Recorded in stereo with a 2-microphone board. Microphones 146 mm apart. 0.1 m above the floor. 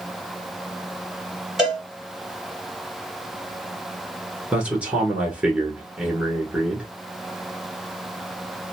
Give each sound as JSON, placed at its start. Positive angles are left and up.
{"t": 1.6, "sound": "a cowbell", "side_deg": -5, "distance_m": 2.0}
{"t": 4.5, "sound": "a man speaking", "side_deg": -10, "distance_m": 1.2}